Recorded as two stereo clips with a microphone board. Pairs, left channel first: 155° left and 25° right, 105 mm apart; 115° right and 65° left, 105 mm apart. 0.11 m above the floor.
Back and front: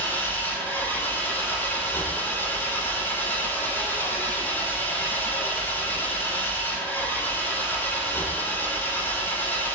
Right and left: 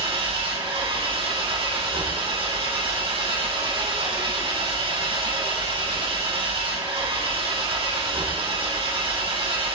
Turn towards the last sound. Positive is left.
turn(degrees=90)